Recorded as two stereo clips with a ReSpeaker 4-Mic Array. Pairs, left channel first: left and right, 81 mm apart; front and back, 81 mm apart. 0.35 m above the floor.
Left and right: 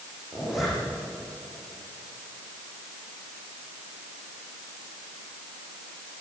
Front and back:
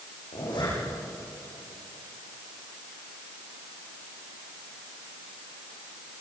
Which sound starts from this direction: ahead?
A zipper, at 0.3 s.